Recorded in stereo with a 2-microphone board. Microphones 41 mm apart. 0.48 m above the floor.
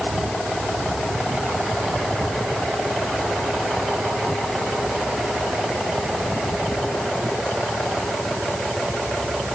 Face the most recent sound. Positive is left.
No sound to turn to.